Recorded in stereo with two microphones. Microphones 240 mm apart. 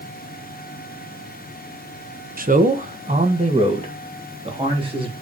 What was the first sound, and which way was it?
A man speaking, 35° right (ahead or behind).